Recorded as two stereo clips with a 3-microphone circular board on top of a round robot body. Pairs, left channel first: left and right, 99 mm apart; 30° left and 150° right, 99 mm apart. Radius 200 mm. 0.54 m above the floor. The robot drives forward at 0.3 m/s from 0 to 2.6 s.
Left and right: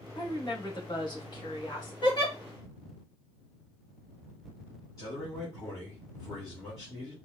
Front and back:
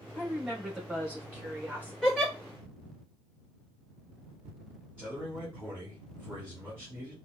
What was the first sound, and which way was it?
A woman speaking, 125° left.